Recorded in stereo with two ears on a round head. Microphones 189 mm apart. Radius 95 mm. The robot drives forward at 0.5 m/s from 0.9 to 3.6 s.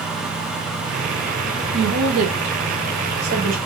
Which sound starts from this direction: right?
A woman speaking, at 1.7 s.